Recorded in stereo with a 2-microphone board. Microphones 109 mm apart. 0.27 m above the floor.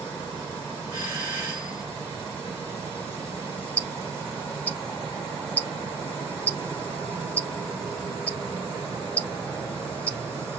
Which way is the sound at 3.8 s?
15° left (ahead or behind).